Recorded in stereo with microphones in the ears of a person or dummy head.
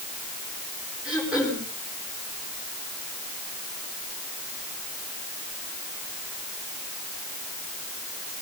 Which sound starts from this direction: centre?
Throat clearing, at 1.1 s.